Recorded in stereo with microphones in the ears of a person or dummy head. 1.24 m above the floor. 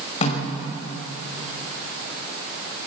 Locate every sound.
0.2 s a snare drum: 40° left (ahead or behind), 5.5 m